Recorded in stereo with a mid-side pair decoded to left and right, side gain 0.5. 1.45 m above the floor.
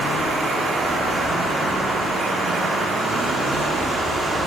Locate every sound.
0.0 s running water: 30° right, 6 m